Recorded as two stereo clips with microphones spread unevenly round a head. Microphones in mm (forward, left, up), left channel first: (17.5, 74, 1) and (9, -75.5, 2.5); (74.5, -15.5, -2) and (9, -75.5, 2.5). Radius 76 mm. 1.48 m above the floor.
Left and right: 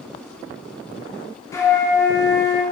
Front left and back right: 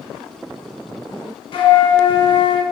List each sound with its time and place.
1.5 s a flute: 15° left, 0.9 m